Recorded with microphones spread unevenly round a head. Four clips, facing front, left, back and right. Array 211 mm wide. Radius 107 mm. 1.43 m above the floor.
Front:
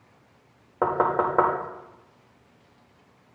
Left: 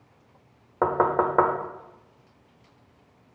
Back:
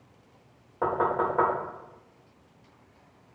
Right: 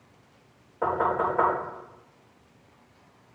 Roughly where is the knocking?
Ahead left.